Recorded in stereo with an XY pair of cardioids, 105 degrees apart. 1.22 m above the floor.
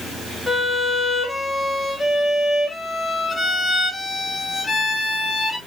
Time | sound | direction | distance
0.5 | a violin | 15° left | 0.8 m